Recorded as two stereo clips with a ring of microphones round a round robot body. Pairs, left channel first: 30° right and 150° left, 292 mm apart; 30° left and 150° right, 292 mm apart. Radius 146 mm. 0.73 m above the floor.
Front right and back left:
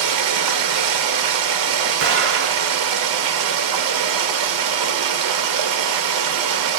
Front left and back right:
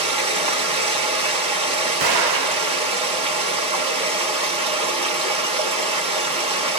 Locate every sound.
0.0 s running water: 140° left, 0.7 m
2.0 s an explosion: 170° right, 0.9 m